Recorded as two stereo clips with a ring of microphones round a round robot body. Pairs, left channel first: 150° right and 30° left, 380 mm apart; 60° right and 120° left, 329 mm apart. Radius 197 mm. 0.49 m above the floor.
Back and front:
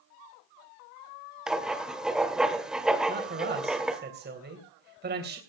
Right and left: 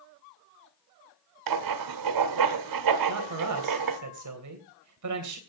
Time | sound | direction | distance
1.5 | writing | 120° left | 1.8 m
3.1 | a man speaking | 95° left | 3 m